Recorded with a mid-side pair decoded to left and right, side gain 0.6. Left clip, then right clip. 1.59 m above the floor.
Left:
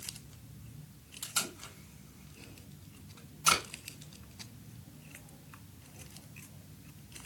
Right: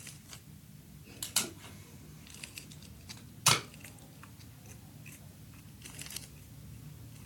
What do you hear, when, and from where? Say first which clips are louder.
1.2 s tape being pulled: even; 25° right, 3.5 m